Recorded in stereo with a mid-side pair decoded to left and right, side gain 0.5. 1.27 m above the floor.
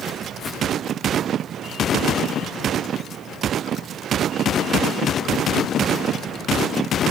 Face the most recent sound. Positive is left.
turn(degrees=55)